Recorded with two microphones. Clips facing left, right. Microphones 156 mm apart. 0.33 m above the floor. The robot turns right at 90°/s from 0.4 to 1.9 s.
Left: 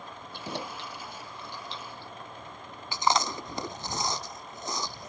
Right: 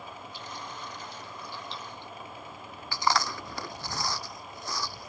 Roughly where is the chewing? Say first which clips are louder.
Left 1 dB; left.